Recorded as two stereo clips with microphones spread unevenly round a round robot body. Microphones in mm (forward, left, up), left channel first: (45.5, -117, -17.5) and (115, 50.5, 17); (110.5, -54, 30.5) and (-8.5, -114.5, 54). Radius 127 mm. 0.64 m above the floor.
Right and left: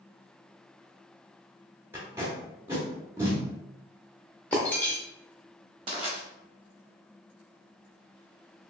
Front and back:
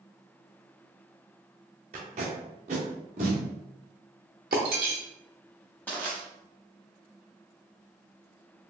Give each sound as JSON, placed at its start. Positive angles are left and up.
{"t": 1.9, "sound": "tape being pulled", "azimuth_deg": 150, "distance_m": 0.6}
{"t": 4.5, "sound": "breaking glass", "azimuth_deg": 160, "distance_m": 0.5}
{"t": 5.9, "sound": "crushing", "azimuth_deg": 115, "distance_m": 0.6}